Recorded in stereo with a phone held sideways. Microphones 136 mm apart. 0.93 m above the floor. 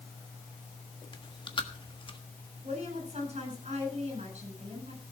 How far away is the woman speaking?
About 7.5 m.